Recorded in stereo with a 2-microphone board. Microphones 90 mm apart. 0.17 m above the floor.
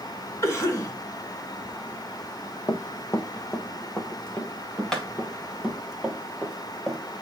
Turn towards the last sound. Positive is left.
turn(degrees=0)  # may be behind; listen again after turning